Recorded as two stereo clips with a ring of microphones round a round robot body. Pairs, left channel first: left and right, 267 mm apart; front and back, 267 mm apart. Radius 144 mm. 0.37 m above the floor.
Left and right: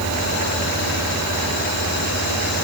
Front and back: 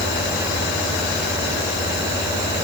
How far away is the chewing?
I don't hear chewing.